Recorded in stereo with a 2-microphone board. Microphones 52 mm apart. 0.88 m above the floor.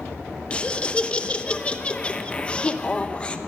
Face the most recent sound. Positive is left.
turn(degrees=20)  # may be behind; listen again after turning